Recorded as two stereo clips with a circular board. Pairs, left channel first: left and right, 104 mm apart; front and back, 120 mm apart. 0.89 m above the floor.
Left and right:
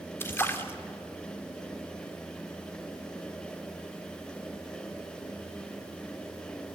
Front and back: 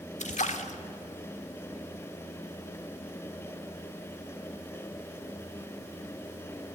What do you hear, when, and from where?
0.2 s a splash: 20° left, 1.3 m